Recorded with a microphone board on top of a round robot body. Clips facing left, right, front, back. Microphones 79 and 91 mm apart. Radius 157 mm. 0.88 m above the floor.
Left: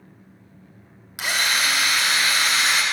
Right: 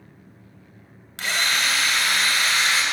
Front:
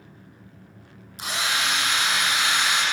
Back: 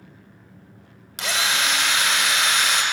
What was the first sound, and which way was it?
A drill, 170° left.